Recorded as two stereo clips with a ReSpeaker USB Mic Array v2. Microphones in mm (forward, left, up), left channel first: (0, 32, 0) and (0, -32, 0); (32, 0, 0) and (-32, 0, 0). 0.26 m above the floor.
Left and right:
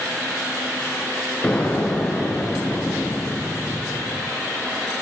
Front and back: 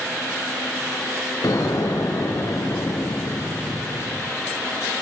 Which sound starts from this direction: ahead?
An explosion, at 1.4 s.